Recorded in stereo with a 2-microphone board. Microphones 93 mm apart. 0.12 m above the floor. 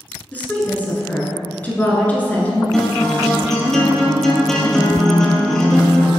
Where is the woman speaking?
15° left (ahead or behind), 1.2 m.